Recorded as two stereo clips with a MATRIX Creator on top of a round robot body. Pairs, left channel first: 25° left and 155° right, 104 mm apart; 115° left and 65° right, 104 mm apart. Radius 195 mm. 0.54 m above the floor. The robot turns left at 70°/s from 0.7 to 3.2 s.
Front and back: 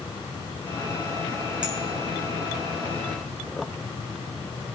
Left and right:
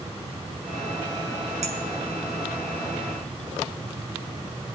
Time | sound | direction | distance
1.6 | a clink | 75° right | 3 m